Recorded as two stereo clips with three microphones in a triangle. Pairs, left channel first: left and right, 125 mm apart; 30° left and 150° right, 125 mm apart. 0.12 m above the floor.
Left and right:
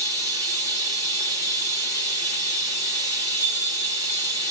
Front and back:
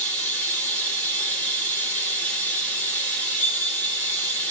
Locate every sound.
0.0 s running water: 45° right, 1.6 m
3.4 s a bell: 25° right, 1.6 m